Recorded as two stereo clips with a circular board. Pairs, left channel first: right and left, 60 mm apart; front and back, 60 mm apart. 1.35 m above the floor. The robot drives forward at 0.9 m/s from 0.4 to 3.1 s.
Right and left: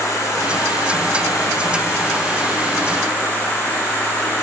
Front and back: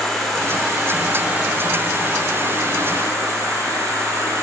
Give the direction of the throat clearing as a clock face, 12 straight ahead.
No throat clearing in this recording.